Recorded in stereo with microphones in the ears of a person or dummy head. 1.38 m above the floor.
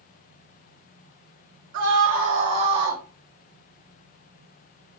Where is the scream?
55° right (ahead or behind), 2 m; by 3.0 s 20° right (ahead or behind), 2.0 m.